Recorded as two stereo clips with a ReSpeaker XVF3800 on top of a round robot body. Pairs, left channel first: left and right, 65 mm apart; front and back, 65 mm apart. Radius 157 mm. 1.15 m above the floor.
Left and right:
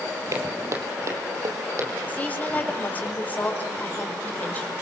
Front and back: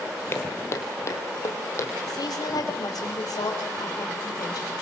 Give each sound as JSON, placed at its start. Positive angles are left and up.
{"t": 0.3, "sound": "footsteps", "azimuth_deg": -50, "distance_m": 2.0}
{"t": 2.1, "sound": "a woman speaking", "azimuth_deg": 25, "distance_m": 4.5}